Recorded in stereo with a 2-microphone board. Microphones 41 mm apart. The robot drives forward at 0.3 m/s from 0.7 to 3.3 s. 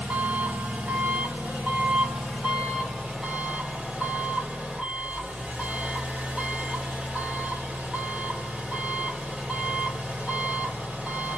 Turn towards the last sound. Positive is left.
turn(degrees=-20)  # may be behind; listen again after turning